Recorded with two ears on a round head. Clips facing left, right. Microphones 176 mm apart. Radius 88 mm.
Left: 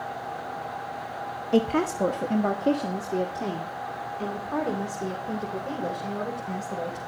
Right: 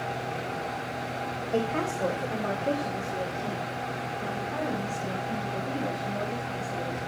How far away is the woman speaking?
About 1.0 m.